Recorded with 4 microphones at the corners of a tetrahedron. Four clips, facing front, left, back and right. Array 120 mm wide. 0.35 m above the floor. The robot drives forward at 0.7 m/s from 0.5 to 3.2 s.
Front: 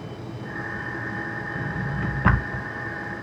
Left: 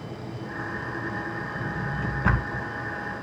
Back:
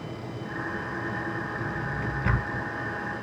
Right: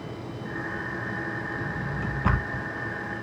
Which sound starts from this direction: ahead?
A drawer, at 1.6 s.